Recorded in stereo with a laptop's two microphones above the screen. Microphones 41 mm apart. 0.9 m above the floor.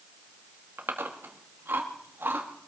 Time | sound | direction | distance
0.8 | chewing | 65° right (ahead or behind) | 1.6 m